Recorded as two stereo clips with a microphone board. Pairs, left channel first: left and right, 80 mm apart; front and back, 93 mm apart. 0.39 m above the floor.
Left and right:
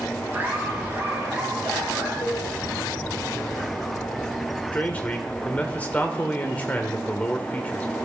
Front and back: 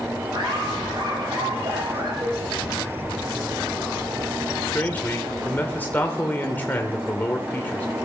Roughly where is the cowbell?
Behind left.